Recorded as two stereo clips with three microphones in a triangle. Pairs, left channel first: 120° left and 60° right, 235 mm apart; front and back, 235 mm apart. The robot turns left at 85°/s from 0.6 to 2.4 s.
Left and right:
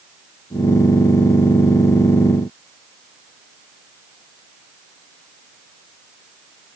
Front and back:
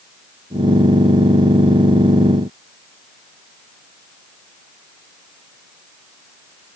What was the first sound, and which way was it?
Only background noise.